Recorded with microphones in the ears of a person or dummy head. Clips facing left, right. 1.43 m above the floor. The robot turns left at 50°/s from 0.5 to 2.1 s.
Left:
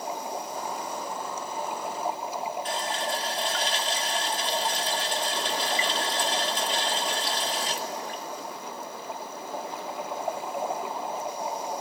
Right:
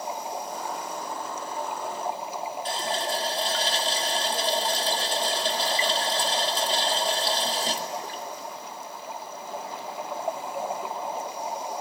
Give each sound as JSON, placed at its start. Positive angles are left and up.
{"t": 2.6, "sound": "a running tap", "side_deg": -35, "distance_m": 1.7}